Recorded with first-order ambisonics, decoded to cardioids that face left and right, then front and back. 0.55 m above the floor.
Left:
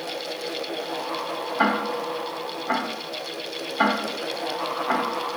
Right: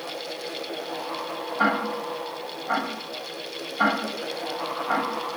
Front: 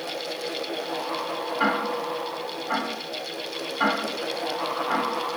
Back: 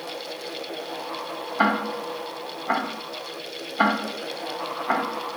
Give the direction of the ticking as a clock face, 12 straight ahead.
7 o'clock.